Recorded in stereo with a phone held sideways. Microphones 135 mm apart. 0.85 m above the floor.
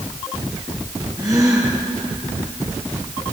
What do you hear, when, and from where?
1.2 s a gasp: 25° right (ahead or behind), 8.5 m